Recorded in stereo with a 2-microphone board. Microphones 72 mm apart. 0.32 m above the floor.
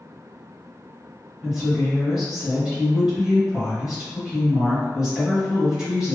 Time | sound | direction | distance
1.4 | a woman speaking | 10° right (ahead or behind) | 1.8 m